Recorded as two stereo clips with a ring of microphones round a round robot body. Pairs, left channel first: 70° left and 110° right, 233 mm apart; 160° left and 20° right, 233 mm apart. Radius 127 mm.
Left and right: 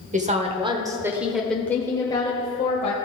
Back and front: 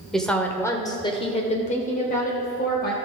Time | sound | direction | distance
0.1 | a woman speaking | 115° right | 1.4 m